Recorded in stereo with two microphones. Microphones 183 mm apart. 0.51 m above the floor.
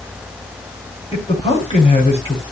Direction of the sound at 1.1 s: 30° left (ahead or behind).